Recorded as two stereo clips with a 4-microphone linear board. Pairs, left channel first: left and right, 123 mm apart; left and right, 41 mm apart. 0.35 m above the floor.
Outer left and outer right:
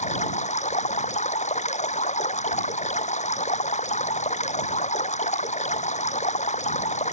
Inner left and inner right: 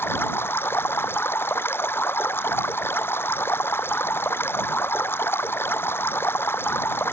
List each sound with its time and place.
0.0 s running water: 70° left (ahead or behind)